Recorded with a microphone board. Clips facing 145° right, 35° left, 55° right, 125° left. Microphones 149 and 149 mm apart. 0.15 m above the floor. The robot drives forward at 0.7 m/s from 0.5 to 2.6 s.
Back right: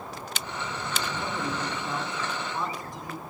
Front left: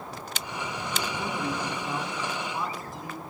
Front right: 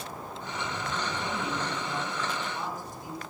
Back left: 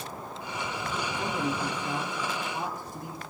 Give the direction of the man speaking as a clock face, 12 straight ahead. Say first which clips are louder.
Front left 1 dB, back left 2 dB; 9 o'clock.